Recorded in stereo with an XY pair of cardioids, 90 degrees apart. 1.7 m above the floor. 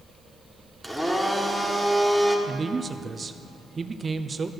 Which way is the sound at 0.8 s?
5° left.